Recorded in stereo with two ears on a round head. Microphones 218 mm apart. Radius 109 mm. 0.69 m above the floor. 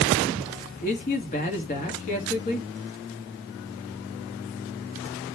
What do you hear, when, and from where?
0.8 s a man speaking: 30° left (ahead or behind), 1.3 m